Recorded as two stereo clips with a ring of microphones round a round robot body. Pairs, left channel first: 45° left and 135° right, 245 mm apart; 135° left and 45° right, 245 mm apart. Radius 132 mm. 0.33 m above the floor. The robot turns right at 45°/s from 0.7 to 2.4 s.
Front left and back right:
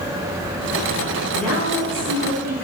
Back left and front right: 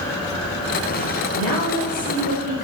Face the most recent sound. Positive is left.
turn(degrees=175)